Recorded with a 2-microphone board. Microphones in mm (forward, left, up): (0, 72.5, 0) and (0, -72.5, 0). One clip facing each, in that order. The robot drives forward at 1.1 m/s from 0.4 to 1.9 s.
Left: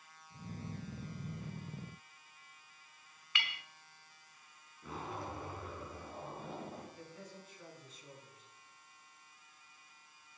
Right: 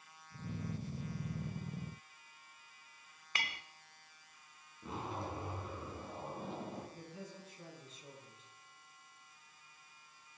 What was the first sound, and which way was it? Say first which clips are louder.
A clink: right 1 dB; 40° right (ahead or behind).